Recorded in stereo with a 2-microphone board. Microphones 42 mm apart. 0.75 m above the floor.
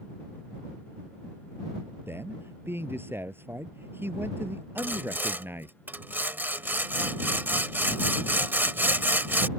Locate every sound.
2.1 s a man speaking: 65° right (ahead or behind); by 5.8 s 60° right (ahead or behind)
4.8 s sawing: 55° right (ahead or behind)